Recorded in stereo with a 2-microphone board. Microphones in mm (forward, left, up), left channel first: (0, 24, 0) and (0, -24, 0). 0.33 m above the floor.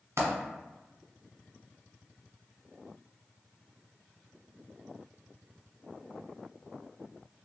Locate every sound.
0.2 s a dropped coin: 75° right (ahead or behind), 1.2 m